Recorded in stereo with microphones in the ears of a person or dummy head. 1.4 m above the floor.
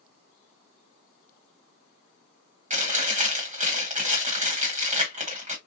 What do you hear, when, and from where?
2.7 s chewing: 35° right (ahead or behind), 1.2 m